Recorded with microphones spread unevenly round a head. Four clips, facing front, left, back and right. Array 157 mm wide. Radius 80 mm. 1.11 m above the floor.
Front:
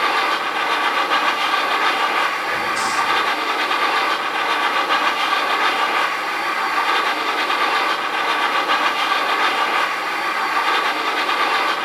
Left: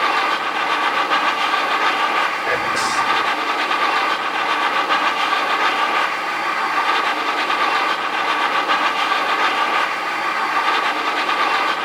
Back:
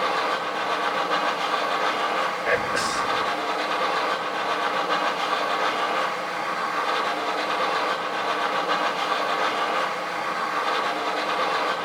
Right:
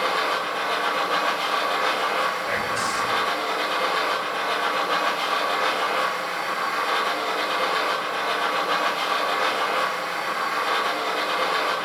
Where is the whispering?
100° left, 3.5 m.